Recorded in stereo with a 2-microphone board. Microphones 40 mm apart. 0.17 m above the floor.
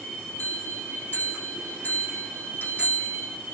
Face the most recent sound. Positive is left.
turn(degrees=45)  # may be behind; listen again after turning